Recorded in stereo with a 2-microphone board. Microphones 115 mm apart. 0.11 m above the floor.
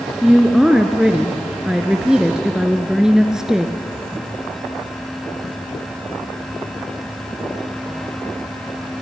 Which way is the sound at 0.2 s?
5° right (ahead or behind).